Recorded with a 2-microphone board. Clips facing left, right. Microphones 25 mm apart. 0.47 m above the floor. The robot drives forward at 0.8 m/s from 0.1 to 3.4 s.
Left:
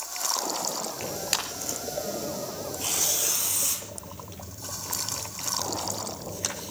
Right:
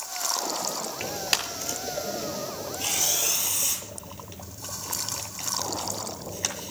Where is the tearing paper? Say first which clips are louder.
Right 4 dB; 10° right (ahead or behind), 6 m.